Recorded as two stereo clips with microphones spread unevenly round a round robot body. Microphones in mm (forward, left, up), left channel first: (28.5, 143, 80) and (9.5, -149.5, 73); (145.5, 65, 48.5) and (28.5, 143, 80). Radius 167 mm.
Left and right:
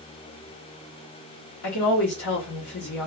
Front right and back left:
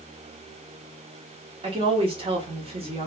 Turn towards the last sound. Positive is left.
turn(degrees=95)